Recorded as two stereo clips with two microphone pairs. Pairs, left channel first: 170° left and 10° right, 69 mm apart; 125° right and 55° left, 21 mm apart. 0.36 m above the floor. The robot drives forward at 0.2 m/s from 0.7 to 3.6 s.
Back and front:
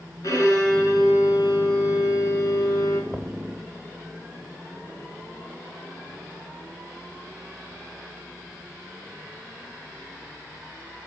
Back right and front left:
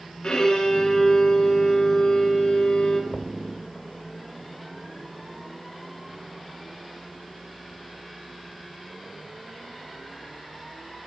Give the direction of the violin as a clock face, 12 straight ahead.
5 o'clock.